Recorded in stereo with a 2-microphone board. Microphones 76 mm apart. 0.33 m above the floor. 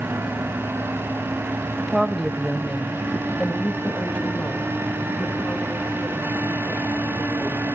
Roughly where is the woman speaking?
Centre.